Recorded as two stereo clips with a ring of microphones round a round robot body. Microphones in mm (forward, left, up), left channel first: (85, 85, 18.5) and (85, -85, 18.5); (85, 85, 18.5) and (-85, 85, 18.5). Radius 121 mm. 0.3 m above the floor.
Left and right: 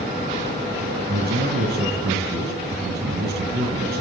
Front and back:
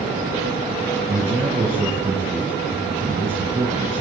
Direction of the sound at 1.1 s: 115° right.